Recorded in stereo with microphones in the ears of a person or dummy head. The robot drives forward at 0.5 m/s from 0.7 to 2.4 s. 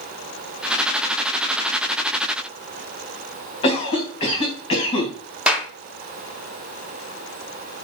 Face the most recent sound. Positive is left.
turn(degrees=-5)  # may be behind; listen again after turning